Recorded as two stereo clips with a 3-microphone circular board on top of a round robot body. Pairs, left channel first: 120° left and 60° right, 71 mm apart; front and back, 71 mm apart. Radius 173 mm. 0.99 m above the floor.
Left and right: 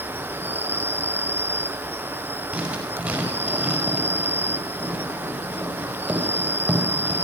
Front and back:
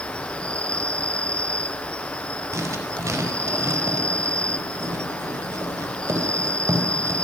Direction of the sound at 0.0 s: 55° right.